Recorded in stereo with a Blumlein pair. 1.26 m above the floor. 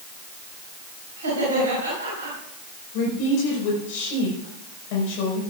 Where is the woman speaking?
45° left, 5 m.